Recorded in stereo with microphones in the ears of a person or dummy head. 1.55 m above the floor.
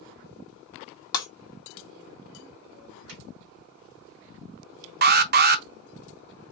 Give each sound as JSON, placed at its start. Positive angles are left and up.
{"t": 1.1, "sound": "breaking glass", "side_deg": 15, "distance_m": 1.6}
{"t": 3.1, "sound": "a drawer", "side_deg": -65, "distance_m": 3.0}
{"t": 5.0, "sound": "an alarm", "side_deg": -45, "distance_m": 0.6}